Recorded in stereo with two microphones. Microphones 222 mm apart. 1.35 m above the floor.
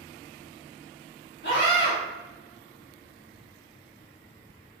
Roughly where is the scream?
Left.